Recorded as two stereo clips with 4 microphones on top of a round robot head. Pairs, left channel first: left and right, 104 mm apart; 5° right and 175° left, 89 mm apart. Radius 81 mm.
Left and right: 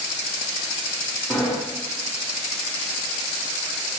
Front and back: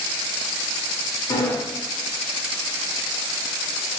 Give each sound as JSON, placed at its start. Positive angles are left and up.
{"t": 1.3, "sound": "a sliding door", "azimuth_deg": 15, "distance_m": 0.8}